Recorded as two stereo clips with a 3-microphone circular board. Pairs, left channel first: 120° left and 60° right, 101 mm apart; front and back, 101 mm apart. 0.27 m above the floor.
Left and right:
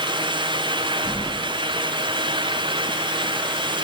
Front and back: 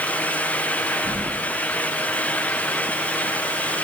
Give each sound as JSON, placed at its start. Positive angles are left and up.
{"t": 1.1, "sound": "keys jangling", "azimuth_deg": -155, "distance_m": 5.0}